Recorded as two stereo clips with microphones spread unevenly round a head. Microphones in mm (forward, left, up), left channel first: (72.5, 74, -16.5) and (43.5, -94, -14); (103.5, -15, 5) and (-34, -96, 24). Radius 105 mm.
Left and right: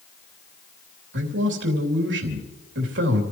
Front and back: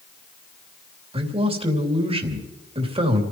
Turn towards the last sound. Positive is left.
turn(degrees=-95)